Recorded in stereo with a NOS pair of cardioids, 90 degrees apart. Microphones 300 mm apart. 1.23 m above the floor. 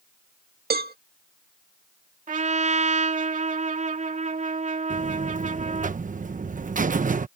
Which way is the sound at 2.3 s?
25° right.